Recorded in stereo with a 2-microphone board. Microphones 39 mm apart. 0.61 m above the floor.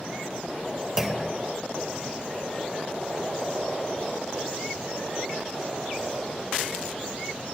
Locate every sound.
1.0 s a clunk: 10° right (ahead or behind), 1.7 m